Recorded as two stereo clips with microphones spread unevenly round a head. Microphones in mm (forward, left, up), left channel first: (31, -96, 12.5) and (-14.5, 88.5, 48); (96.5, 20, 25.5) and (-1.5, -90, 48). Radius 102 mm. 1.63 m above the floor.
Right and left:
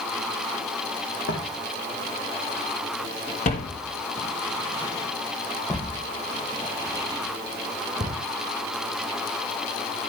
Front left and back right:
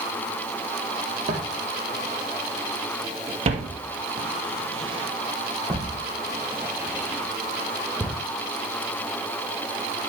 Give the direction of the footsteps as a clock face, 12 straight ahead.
4 o'clock.